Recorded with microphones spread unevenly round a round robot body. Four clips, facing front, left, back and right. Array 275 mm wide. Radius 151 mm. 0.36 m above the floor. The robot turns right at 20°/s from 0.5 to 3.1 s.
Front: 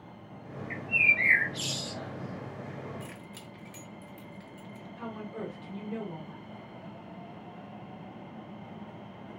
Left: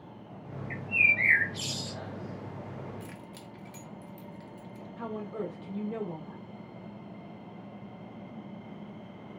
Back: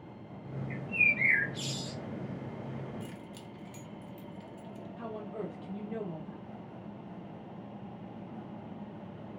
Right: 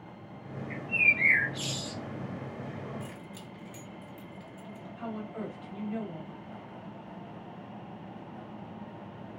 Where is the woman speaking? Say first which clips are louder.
Left 2 dB, front 1 dB; 90° left, 1.8 m.